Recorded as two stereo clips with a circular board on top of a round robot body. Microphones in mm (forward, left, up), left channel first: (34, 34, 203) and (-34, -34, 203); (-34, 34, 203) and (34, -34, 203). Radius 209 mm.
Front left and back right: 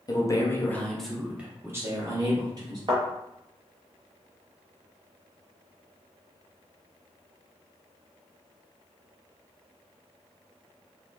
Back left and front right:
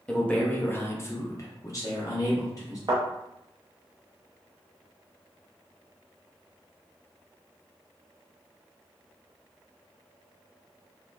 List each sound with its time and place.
0.1 s a man speaking: 60° left, 0.9 m; by 2.8 s 175° right, 1.3 m
2.9 s a thud: 90° right, 0.5 m